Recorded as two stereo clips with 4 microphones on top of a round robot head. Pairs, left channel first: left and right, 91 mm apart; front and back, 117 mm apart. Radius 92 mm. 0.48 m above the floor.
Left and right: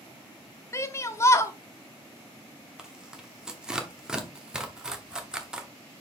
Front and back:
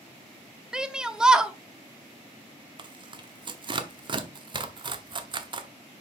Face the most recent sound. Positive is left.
turn(degrees=-165)